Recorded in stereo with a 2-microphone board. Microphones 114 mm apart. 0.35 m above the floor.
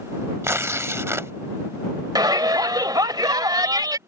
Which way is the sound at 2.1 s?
35° right (ahead or behind).